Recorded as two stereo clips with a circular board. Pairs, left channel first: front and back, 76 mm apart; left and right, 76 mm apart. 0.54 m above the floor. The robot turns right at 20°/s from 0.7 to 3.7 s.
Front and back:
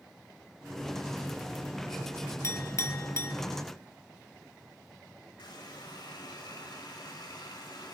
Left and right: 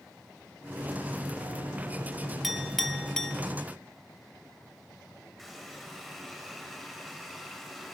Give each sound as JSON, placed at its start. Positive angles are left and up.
{"t": 2.4, "sound": "a clink", "azimuth_deg": 0, "distance_m": 0.7}
{"t": 5.4, "sound": "a running tap", "azimuth_deg": 0, "distance_m": 1.4}